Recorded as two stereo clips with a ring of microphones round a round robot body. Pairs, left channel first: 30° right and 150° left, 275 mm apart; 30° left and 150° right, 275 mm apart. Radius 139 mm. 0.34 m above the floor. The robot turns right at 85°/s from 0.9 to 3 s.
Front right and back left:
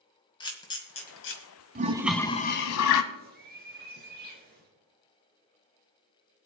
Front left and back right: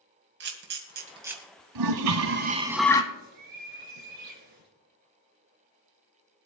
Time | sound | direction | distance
0.4 | a camera shutter | 100° right | 1.9 m
1.8 | a toilet flushing | 150° right | 1.0 m
3.1 | a bird | 150° right | 3 m